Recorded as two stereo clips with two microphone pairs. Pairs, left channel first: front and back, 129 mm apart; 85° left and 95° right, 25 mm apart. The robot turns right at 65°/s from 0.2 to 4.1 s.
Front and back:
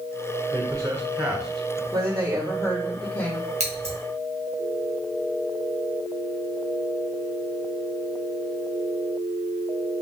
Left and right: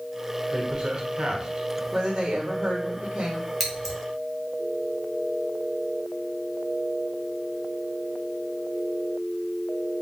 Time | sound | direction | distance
0.5 | a man speaking | 150° right | 1.9 m
1.9 | a woman speaking | 145° right | 1.7 m
3.6 | scissors | 175° right | 2.5 m